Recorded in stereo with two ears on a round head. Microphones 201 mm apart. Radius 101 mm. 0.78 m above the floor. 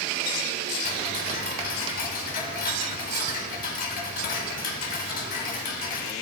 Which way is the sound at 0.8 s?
40° left (ahead or behind).